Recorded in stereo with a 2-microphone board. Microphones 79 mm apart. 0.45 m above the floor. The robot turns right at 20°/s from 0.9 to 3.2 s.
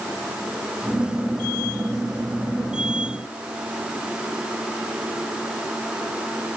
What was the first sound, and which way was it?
Only background noise.